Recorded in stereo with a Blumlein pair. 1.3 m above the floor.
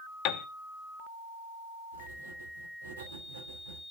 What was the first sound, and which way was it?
A piano, 40° left.